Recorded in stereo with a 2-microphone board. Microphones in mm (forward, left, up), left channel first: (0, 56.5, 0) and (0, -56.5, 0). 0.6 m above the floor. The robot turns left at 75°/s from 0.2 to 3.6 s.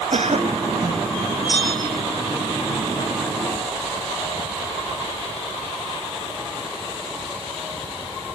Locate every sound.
0.1 s a cough: 80° right; by 1.1 s 145° right
1.5 s a bell: 105° left; by 2.0 s 70° left